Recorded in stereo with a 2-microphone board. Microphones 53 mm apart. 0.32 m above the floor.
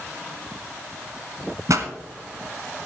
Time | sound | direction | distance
1.7 | a pop | 75° right (ahead or behind) | 1.2 m